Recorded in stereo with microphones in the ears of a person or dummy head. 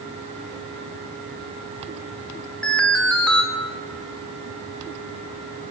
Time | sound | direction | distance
2.6 | an alarm | 10° left (ahead or behind) | 3.5 m